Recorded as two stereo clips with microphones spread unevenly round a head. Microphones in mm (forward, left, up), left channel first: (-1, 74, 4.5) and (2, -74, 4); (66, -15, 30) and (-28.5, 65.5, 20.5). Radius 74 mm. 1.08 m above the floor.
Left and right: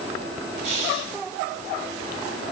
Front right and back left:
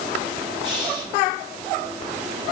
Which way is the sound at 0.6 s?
135° right.